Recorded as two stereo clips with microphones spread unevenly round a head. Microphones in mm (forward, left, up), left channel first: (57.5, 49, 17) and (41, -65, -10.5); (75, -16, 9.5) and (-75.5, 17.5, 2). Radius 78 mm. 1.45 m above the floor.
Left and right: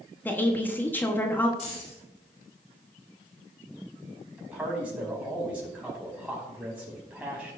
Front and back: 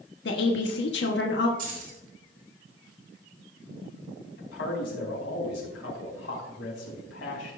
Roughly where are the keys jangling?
Behind left.